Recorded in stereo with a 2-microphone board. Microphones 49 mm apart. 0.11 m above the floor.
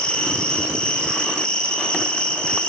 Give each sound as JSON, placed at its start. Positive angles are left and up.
{"t": 0.0, "sound": "an insect", "side_deg": 20, "distance_m": 1.1}